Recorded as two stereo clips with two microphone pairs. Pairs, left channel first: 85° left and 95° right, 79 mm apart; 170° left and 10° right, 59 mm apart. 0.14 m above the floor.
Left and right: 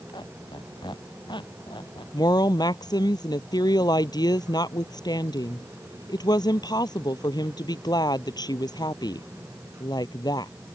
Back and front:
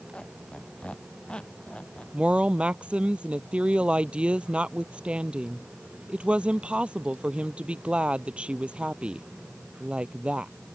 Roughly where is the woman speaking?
Ahead left.